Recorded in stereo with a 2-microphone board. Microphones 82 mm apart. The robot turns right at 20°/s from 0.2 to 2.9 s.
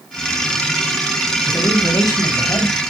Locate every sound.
1.5 s a man speaking: 50° left (ahead or behind), 2.5 m; by 2.8 s 45° left (ahead or behind), 2.5 m